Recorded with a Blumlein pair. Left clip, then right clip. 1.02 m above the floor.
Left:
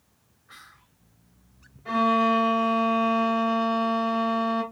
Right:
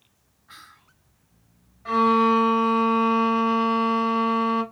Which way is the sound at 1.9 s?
60° right.